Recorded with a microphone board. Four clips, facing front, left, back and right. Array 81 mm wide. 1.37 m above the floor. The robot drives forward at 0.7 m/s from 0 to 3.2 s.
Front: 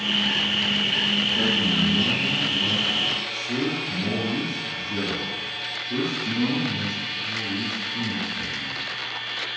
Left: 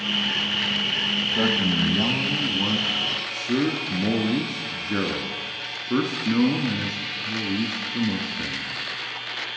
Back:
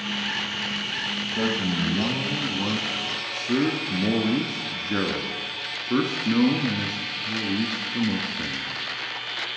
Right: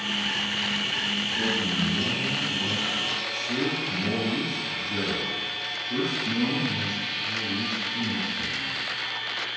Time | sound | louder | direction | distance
1.3 | a man speaking | left 6 dB, back 1 dB | 100° left | 1.4 m